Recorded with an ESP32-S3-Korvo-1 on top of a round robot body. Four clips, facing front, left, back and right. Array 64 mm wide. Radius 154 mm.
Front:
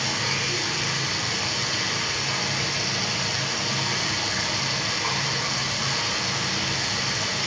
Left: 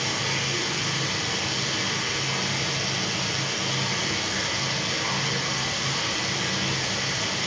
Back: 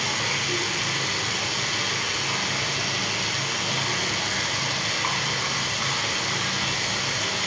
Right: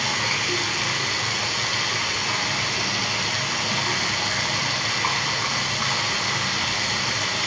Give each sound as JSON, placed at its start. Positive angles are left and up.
{"t": 0.0, "sound": "running water", "azimuth_deg": -100, "distance_m": 1.3}